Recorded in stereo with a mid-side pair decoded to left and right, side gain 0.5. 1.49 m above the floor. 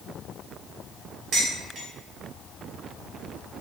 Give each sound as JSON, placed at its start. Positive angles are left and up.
{"t": 1.3, "sound": "dishes clattering", "azimuth_deg": -65, "distance_m": 1.5}